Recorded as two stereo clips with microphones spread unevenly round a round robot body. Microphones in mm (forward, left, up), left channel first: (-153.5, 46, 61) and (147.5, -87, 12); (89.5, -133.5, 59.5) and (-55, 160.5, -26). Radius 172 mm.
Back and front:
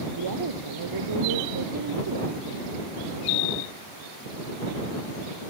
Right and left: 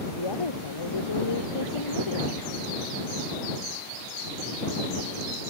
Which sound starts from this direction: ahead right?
A woman speaking, at 0.2 s.